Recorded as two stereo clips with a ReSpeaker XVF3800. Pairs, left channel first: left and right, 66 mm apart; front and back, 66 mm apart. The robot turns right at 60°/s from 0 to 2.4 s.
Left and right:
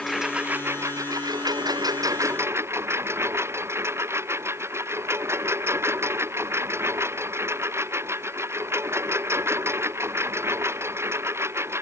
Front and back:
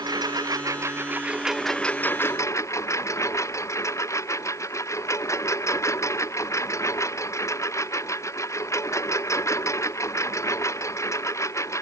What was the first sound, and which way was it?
A lawn mower, 175° left.